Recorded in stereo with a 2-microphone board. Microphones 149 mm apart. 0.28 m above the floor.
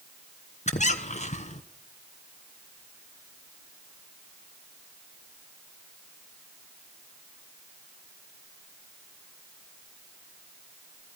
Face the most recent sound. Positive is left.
turn(degrees=50)  # may be behind; listen again after turning